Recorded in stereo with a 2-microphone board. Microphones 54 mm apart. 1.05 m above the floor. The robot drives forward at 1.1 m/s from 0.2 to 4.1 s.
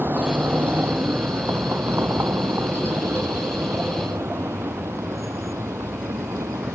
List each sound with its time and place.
0.0 s a vehicle: 40° right (ahead or behind); by 6.8 s 70° right (ahead or behind)